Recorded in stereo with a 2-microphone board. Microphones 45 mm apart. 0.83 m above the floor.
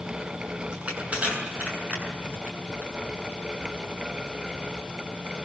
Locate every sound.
0.7 s crushing: 30° right (ahead or behind), 7.5 m